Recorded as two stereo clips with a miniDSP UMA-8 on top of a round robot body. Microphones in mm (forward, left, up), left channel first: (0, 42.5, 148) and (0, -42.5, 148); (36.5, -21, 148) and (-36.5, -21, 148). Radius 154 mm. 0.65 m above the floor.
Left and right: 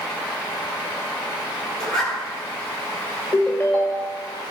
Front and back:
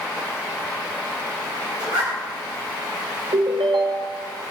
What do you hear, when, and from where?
1.8 s a zipper: 175° left, 3.5 m
3.3 s a ringtone: 165° left, 1.3 m